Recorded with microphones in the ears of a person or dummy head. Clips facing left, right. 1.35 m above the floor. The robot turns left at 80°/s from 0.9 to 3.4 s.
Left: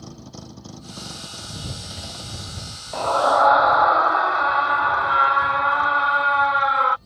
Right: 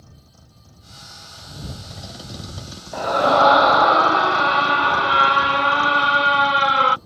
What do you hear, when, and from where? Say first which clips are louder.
0.0 s a vehicle: left 13 dB; 85° left; by 7.1 s 115° right
2.9 s a scream: right 2 dB; 5° right; by 7.0 s 40° right